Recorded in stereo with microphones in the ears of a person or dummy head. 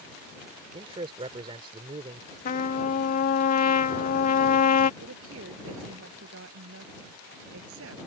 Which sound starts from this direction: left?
A trumpet, at 2.5 s.